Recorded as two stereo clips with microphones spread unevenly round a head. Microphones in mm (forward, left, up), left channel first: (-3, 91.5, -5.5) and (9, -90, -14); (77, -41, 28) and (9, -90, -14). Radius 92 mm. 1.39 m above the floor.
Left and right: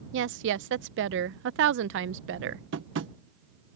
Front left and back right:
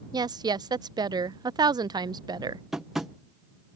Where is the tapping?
65° right.